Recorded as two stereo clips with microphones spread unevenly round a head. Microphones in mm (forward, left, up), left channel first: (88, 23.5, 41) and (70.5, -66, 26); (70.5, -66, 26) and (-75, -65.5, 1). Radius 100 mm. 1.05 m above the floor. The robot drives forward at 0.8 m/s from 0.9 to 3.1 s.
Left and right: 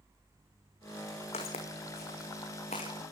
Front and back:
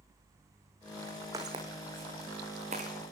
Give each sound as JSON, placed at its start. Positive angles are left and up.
{"t": 1.3, "sound": "footsteps", "azimuth_deg": 100, "distance_m": 3.0}